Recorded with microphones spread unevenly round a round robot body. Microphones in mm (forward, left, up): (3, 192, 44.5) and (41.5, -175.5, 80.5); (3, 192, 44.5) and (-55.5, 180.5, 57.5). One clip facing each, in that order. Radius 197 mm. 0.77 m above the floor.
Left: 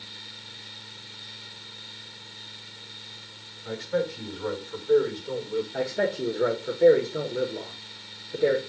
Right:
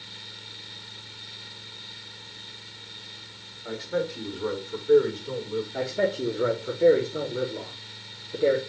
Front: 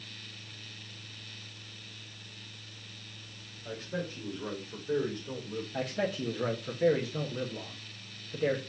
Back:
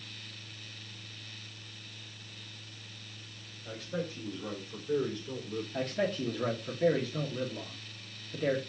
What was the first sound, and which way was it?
A man speaking, 45° right.